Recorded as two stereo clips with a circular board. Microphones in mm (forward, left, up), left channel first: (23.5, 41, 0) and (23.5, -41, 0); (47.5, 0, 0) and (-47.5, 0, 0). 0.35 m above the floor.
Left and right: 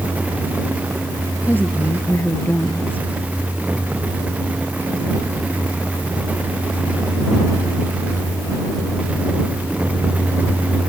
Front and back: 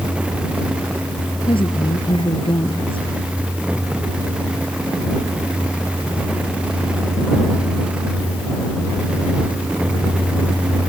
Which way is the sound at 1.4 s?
20° left.